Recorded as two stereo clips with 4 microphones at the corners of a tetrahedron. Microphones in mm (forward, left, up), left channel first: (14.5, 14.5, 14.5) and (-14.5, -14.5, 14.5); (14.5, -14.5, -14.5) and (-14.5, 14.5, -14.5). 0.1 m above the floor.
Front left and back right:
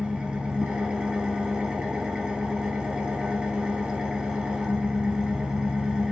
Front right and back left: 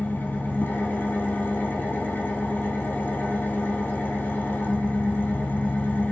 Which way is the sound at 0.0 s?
70° right.